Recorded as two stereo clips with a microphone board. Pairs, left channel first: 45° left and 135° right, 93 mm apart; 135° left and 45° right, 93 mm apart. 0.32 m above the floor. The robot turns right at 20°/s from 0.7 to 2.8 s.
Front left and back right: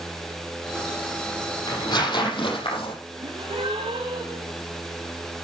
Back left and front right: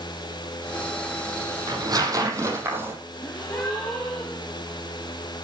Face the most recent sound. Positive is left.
turn(degrees=-160)